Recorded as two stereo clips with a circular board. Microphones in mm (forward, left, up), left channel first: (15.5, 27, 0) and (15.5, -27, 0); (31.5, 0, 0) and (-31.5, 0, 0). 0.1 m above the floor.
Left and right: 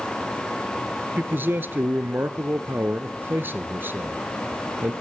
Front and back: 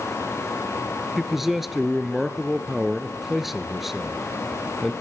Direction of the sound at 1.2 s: 95° right.